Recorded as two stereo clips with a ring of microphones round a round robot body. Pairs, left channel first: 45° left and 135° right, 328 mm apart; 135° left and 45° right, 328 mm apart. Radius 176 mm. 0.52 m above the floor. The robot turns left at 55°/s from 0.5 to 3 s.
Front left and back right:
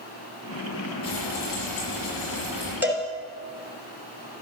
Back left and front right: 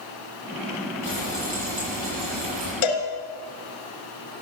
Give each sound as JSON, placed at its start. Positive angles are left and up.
{"t": 1.0, "sound": "frying", "azimuth_deg": 35, "distance_m": 8.5}
{"t": 2.8, "sound": "a cowbell", "azimuth_deg": 140, "distance_m": 2.5}